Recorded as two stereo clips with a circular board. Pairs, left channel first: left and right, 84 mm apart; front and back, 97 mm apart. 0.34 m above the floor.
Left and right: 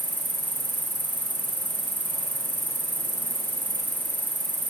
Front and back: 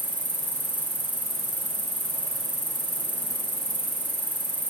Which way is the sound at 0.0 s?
25° left.